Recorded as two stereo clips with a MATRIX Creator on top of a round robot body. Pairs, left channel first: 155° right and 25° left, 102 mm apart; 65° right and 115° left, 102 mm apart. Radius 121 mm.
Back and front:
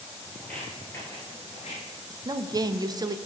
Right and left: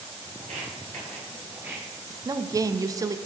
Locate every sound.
0.4 s footsteps: 120° left, 1.4 m; by 1.8 s 160° right, 1.0 m
2.1 s a woman speaking: 65° left, 0.5 m